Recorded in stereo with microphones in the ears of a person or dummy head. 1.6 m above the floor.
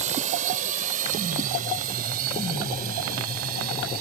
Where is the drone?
40° right (ahead or behind); by 4.0 s 50° right (ahead or behind).